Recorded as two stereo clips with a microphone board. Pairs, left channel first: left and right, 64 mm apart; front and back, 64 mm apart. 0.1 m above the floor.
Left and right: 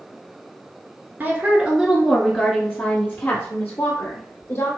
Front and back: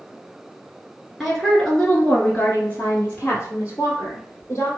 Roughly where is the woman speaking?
Right.